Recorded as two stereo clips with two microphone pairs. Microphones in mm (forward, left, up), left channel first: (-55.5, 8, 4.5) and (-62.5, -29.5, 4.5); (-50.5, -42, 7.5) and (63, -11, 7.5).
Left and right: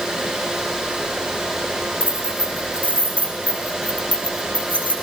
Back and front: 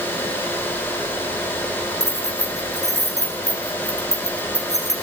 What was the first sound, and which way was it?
Keys jangling, 25° left.